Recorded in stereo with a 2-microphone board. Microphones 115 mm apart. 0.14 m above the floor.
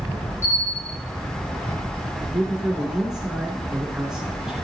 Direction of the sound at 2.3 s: 5° right (ahead or behind).